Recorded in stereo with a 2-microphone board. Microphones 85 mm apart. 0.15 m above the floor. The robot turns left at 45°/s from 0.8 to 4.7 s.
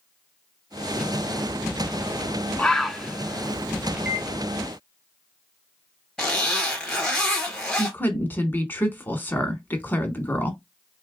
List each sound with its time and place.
2.6 s a bird: 10° left (ahead or behind), 0.9 m; by 3.9 s 20° right (ahead or behind), 0.9 m
4.0 s a microwave: 20° right (ahead or behind), 3 m; by 4.3 s 5° right (ahead or behind), 3 m
6.2 s a zipper: 5° left (ahead or behind), 3 m
7.8 s a woman speaking: 20° left (ahead or behind), 1.2 m